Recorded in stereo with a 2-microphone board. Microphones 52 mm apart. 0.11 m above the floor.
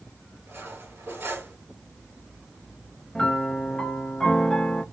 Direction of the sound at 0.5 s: 55° right (ahead or behind).